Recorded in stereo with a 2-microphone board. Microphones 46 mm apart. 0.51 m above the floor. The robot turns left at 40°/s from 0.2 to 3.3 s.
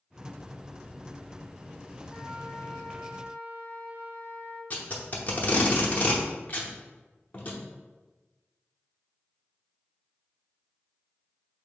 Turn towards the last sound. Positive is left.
turn(degrees=40)  # may be behind; listen again after turning